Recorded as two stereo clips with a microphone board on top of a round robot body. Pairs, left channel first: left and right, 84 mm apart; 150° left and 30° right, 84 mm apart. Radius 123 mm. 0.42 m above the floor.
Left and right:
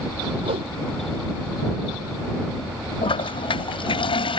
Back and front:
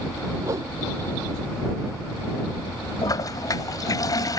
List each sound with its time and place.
0.4 s a whoosh: 85° right
3.0 s a toilet flushing: 105° left